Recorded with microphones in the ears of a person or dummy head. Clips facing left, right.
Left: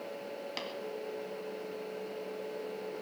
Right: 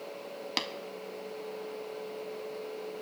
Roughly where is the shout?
No shout in this recording.